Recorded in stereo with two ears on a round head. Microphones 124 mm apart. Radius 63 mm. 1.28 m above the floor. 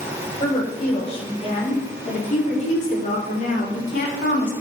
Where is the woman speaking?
45° left (ahead or behind), 5.5 m; by 4.5 s 70° left (ahead or behind), 3.5 m.